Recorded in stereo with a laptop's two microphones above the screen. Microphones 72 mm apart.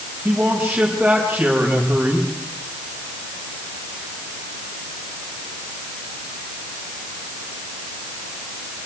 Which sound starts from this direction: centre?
A man speaking, at 0.2 s.